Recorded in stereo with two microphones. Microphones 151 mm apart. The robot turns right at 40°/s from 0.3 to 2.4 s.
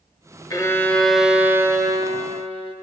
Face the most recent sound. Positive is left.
turn(degrees=-130)